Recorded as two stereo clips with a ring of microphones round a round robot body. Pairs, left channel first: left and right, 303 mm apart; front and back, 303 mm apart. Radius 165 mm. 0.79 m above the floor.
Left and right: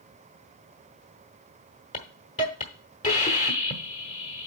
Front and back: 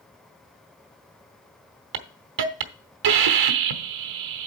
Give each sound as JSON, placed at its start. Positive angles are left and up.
{"t": 1.9, "sound": "a hiss", "azimuth_deg": 160, "distance_m": 0.9}